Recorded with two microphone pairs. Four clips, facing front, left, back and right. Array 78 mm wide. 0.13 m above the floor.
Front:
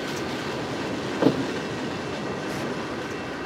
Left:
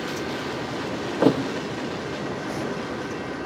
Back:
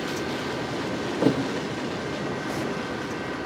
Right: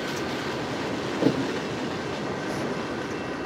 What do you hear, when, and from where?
1.2 s a thud: 75° left, 0.8 m